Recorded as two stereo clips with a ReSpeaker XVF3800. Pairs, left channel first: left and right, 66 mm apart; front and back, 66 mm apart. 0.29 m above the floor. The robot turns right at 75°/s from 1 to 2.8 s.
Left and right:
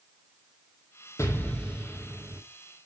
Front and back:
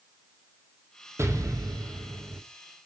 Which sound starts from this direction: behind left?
An explosion, at 1.2 s.